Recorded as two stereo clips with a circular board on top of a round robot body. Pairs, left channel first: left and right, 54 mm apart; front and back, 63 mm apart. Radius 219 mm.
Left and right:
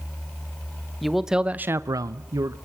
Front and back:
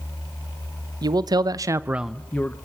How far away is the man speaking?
About 1.4 m.